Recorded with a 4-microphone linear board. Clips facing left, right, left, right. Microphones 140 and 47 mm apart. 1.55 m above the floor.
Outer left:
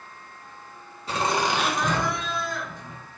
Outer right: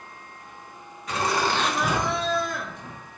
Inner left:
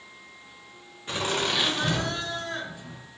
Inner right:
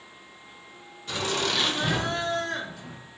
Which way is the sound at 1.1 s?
30° left (ahead or behind).